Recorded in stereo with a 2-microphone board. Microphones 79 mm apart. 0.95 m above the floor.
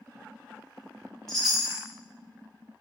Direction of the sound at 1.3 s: 5° left (ahead or behind).